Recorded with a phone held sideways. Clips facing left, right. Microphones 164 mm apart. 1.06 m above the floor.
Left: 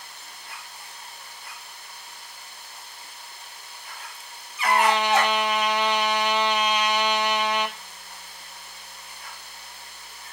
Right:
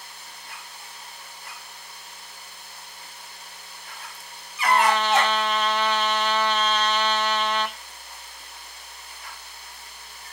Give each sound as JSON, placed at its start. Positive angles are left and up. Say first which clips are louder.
{"t": 4.6, "sound": "a trumpet", "louder": "even", "side_deg": 15, "distance_m": 0.8}